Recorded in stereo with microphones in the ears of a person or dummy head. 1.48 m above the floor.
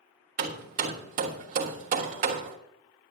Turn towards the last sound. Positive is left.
turn(degrees=-45)  # may be behind; listen again after turning